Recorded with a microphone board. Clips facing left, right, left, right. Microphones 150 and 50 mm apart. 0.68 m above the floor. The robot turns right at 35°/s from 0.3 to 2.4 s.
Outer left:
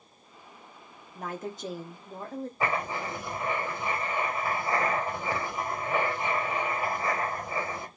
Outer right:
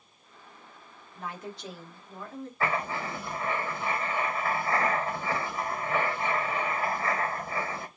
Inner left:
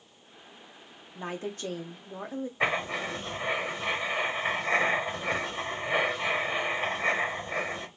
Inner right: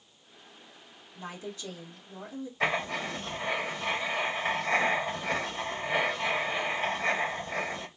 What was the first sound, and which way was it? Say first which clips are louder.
A woman speaking: outer left 3 dB, inner left 5 dB; 80° left.